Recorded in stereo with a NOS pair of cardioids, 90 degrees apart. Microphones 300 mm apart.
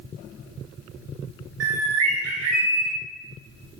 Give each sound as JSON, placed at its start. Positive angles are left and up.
{"t": 1.6, "sound": "a bird", "azimuth_deg": -60, "distance_m": 0.8}